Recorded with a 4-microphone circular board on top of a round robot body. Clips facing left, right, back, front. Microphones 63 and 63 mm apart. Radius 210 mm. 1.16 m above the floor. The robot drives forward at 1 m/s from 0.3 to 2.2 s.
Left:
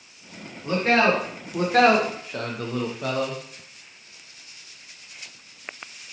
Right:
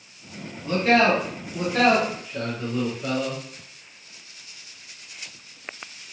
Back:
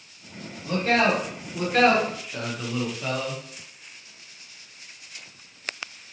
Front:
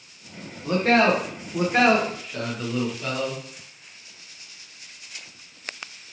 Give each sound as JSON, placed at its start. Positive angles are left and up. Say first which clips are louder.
{"t": 0.6, "sound": "a man speaking", "louder": "right 1 dB, front 3 dB", "azimuth_deg": 30, "distance_m": 1.7}